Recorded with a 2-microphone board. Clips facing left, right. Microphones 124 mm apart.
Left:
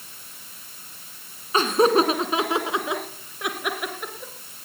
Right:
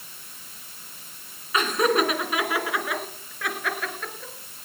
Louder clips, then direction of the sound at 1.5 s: Left 4 dB; 30° left (ahead or behind).